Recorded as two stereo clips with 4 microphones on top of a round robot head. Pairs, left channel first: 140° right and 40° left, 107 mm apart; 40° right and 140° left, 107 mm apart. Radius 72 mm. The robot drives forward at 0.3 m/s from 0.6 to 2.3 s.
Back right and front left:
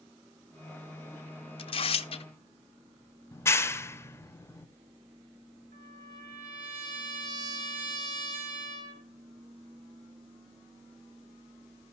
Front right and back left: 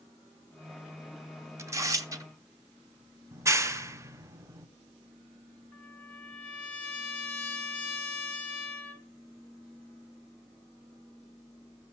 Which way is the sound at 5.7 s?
40° left.